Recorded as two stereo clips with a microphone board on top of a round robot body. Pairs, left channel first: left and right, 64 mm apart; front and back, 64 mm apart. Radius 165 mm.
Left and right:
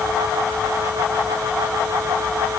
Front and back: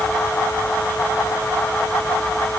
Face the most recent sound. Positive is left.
No sound to turn to.